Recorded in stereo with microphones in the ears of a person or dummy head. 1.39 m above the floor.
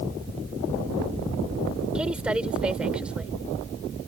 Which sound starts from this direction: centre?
A woman speaking, at 1.9 s.